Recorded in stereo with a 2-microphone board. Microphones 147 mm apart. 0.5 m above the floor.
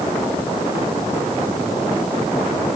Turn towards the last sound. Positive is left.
No sound to turn to.